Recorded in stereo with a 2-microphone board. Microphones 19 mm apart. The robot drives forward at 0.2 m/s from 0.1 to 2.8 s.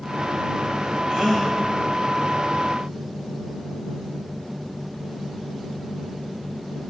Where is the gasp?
15° right (ahead or behind), 2.5 m.